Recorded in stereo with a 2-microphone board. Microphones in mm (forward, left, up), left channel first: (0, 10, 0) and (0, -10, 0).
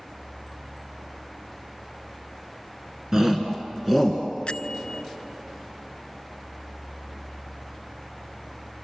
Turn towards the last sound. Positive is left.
turn(degrees=60)  # may be behind; listen again after turning